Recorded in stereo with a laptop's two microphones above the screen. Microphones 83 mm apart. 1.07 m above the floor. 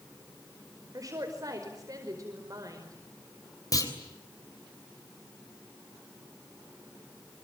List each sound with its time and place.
0.9 s a woman speaking: 45° right (ahead or behind), 5 m
3.7 s a clunk: 45° left (ahead or behind), 3.5 m